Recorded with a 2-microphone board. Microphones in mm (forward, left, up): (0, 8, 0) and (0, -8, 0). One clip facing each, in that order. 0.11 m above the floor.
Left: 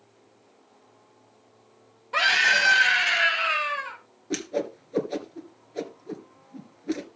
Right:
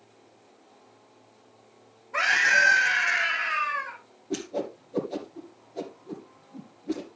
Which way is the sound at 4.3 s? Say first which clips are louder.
Left 2 dB; 40° left (ahead or behind).